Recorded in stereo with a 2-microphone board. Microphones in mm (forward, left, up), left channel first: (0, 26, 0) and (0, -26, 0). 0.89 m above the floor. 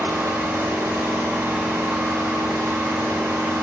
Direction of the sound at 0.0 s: 85° right.